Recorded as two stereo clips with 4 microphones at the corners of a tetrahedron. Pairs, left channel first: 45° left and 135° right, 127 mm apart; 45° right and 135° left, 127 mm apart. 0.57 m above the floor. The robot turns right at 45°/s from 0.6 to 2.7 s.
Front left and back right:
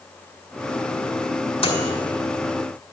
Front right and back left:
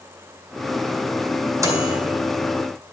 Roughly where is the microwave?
Left.